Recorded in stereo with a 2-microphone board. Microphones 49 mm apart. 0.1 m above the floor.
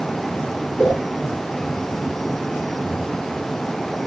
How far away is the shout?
No shout in this recording.